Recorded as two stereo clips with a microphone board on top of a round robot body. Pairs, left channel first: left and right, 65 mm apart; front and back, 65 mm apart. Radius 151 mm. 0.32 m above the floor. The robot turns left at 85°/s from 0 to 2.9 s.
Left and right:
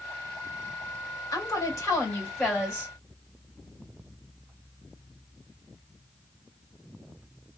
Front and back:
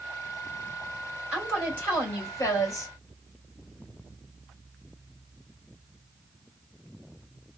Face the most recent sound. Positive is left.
turn(degrees=-30)